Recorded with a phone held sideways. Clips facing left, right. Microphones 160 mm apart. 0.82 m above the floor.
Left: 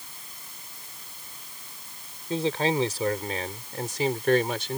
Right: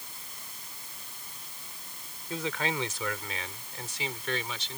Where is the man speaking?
30° left (ahead or behind); by 4.8 s 55° left (ahead or behind).